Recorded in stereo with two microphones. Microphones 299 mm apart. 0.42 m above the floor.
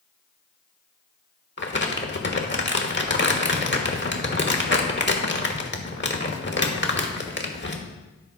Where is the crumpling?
40° left (ahead or behind), 1.0 m.